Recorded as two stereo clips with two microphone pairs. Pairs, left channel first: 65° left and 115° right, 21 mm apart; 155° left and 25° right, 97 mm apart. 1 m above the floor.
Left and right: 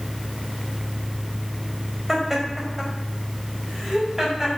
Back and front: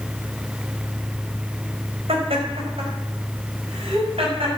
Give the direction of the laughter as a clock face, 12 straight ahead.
1 o'clock.